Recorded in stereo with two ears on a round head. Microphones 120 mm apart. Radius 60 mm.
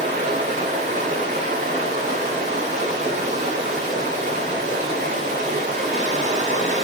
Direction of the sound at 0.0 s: 60° right (ahead or behind).